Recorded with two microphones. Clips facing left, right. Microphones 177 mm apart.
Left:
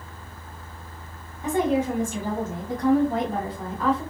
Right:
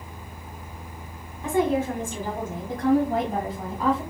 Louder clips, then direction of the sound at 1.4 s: Even; 20° left (ahead or behind).